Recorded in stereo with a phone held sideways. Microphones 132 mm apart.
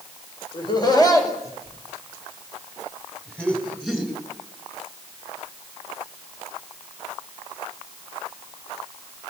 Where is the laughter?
35° left (ahead or behind), 5 m; by 4.1 s centre (ahead or behind), 7 m.